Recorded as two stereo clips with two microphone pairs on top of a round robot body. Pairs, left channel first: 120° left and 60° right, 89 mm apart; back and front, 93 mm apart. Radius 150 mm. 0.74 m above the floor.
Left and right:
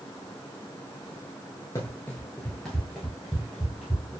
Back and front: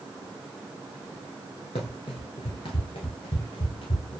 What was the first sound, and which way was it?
Running footsteps, 175° left.